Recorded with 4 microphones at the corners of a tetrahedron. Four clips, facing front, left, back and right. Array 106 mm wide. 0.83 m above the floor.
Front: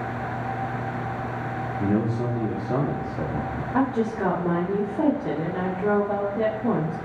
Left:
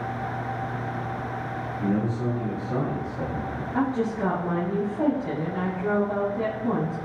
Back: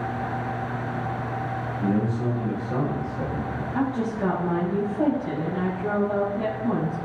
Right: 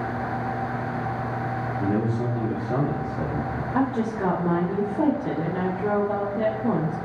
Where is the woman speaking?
30° right, 2 m.